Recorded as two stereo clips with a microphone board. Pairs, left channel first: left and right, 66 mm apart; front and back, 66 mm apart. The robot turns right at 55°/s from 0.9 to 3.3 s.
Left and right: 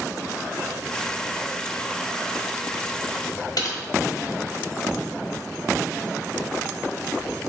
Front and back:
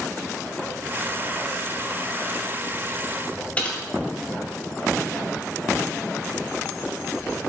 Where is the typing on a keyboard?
70° left, 0.9 m.